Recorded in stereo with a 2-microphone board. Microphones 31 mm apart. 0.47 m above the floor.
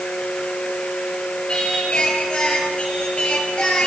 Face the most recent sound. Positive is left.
turn(degrees=30)  # may be behind; listen again after turning